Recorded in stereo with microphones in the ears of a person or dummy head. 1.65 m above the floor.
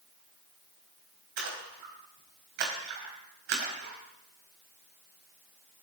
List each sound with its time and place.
1.4 s a splash: 65° right (ahead or behind), 4.5 m